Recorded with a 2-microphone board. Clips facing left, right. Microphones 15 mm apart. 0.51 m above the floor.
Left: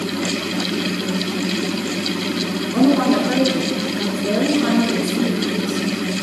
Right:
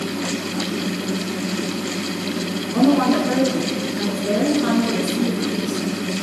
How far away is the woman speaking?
About 6 m.